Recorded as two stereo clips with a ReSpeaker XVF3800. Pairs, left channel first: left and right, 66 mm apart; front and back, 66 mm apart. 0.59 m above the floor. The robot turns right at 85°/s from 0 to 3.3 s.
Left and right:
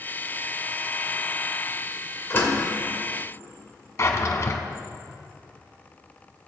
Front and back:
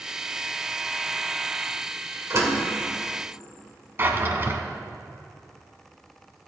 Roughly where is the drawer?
Behind left.